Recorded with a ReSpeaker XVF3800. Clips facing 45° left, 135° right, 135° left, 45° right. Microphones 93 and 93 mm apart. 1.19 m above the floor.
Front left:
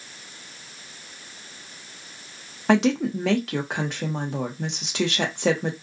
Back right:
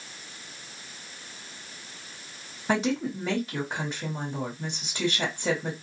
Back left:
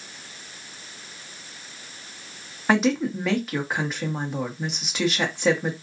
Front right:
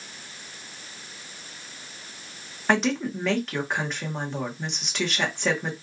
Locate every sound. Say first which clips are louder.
2.7 s a woman speaking: front left 6 dB, back left 3 dB; 50° left, 0.9 m